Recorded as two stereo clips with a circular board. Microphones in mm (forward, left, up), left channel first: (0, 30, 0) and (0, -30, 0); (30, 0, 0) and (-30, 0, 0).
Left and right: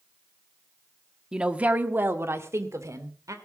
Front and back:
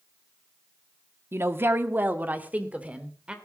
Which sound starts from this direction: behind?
A woman speaking, at 1.3 s.